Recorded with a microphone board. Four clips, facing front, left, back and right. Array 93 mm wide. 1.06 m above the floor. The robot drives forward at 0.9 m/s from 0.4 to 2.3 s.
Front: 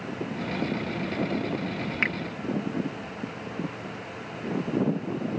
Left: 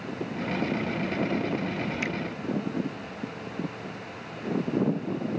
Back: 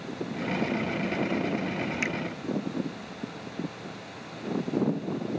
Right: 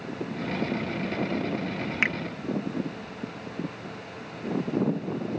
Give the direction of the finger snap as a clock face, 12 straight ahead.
2 o'clock.